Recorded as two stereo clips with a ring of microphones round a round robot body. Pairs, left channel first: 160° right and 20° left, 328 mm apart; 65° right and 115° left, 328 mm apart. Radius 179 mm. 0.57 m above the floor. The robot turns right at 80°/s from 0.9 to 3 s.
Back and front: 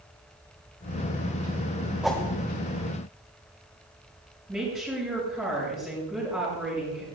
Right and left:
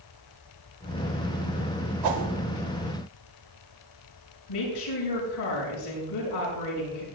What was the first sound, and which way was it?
A whoosh, 110° left.